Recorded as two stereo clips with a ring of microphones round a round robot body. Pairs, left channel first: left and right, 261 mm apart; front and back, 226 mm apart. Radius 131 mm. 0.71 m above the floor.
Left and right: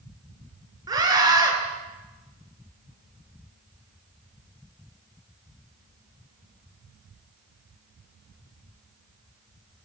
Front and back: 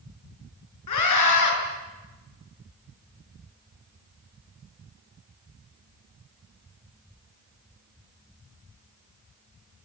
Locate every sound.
0.9 s a scream: 15° right, 8.5 m